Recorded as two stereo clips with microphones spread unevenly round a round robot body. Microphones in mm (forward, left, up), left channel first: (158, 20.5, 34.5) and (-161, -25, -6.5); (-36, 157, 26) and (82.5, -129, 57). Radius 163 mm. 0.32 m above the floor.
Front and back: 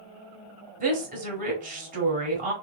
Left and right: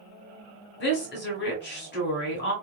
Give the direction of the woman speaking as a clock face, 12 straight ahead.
7 o'clock.